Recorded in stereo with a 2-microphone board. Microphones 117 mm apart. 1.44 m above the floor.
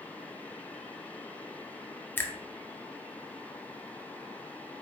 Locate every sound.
2.2 s a finger snap: 15° left (ahead or behind), 0.5 m